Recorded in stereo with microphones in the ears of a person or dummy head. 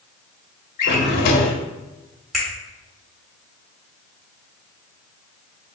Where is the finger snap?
Centre (ahead or behind), 1.6 m.